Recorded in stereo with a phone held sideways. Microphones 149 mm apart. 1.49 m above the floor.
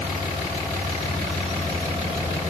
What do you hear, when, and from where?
Only background noise.